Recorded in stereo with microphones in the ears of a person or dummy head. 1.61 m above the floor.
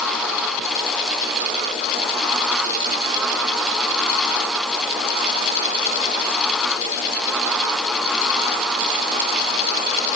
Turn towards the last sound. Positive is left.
No sound to turn to.